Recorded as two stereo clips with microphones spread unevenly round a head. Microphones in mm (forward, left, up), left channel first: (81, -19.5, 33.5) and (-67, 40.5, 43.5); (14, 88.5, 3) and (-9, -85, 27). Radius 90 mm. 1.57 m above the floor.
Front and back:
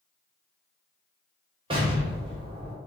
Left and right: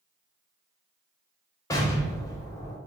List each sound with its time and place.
1.7 s an explosion: 155° left, 0.5 m